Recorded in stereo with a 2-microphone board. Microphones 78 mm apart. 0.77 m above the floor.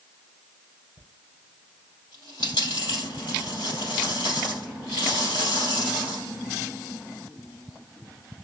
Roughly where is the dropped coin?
Left.